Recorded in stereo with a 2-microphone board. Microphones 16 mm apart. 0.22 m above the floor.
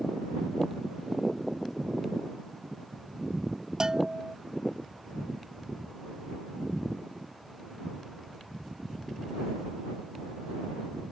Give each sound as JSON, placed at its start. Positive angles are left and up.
{"t": 3.8, "sound": "a bell", "side_deg": -35}